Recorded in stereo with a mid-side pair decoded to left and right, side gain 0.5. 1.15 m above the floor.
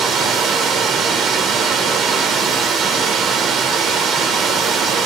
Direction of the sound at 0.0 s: 60° right.